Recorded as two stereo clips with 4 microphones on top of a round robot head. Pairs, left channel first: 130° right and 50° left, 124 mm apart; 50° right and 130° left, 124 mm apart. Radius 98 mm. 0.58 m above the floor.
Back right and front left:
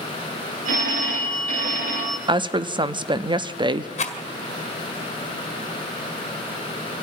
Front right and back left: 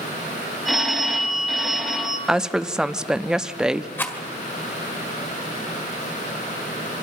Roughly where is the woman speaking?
Ahead left.